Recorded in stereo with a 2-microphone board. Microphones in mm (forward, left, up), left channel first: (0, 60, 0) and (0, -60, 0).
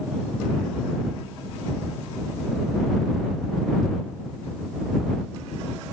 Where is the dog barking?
I don't hear a dog barking.